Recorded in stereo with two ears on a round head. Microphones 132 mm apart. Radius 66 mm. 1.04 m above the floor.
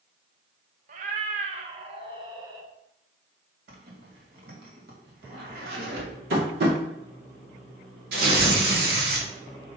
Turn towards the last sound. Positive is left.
turn(degrees=-75)  # may be behind; listen again after turning